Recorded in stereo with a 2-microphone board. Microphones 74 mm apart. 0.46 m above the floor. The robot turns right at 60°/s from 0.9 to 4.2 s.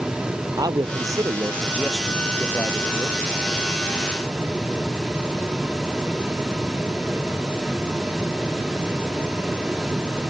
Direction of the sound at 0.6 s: 65° right.